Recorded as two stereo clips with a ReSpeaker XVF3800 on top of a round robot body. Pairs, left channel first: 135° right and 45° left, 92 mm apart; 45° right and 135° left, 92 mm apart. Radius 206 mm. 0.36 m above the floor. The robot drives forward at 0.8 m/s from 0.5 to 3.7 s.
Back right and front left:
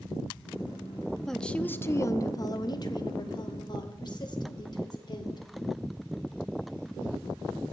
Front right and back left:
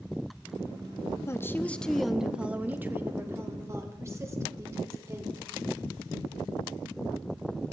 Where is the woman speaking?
50° right, 1.1 m; by 5.5 s 170° right, 1.9 m.